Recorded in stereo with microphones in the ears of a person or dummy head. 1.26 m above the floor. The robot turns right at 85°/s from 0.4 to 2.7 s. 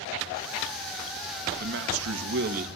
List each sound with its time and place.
1.6 s a man speaking: 130° right, 1.8 m; by 2.7 s 35° right, 1.8 m